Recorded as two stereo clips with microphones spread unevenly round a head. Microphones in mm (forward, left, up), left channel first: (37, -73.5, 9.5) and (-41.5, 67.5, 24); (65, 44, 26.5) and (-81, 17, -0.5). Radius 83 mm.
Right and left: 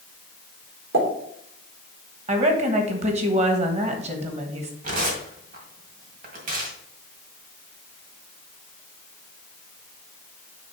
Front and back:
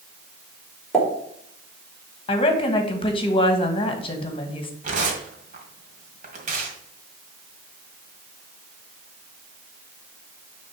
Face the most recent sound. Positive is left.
turn(degrees=150)